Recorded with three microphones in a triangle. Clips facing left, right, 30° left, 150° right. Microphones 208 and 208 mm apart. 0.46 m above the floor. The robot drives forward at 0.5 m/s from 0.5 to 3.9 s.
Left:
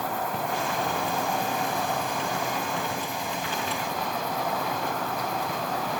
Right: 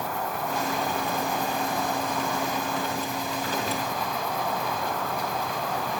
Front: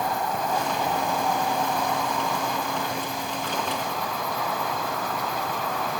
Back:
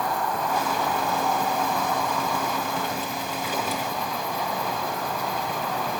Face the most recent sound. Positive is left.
turn(degrees=135)